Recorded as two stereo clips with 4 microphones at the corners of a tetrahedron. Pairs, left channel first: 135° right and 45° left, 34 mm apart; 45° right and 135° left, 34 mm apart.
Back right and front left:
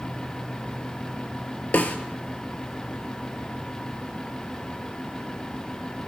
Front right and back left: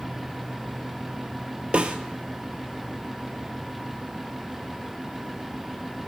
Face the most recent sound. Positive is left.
turn(degrees=-175)